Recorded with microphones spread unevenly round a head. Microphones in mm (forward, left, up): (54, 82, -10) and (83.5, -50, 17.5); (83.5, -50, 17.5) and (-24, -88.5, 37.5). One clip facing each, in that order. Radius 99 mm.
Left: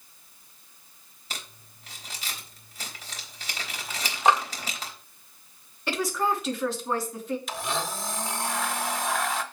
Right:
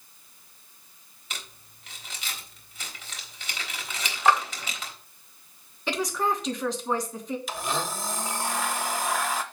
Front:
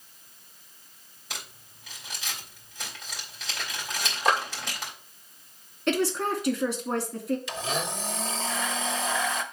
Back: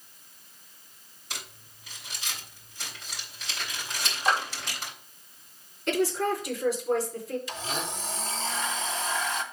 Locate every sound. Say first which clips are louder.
1.3 s crumpling: left 1 dB, front 1 dB; 45° left, 3.5 m
4.2 s a clap: even, front 2 dB; 35° left, 1.9 m
5.9 s a woman speaking: even, even; 15° left, 2.5 m
7.5 s a blender: right 1 dB, front 3 dB; 5° left, 1.3 m